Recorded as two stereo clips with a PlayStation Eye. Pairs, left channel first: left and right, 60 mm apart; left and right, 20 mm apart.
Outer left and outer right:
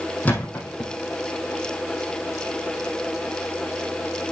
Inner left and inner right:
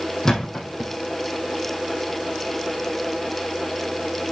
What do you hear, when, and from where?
0.2 s a thud: 25° left (ahead or behind), 3.5 m